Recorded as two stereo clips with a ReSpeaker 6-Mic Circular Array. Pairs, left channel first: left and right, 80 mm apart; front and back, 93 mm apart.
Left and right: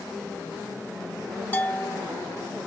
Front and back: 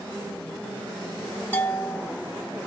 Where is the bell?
50° left, 0.8 m.